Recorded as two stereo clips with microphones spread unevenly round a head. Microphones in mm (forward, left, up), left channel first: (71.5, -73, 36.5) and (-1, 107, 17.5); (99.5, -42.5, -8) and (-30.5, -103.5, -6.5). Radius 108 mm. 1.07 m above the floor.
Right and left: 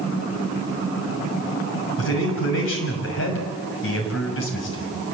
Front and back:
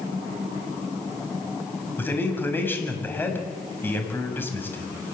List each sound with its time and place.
2.0 s a man speaking: 50° right, 6.5 m